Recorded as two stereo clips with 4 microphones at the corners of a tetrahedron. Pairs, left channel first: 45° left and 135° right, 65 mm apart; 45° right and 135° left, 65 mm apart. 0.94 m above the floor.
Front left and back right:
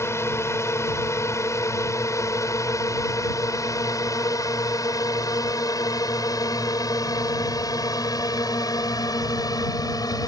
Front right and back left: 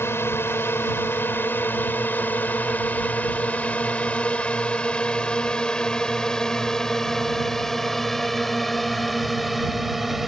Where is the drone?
Straight ahead; by 10.3 s 45° left.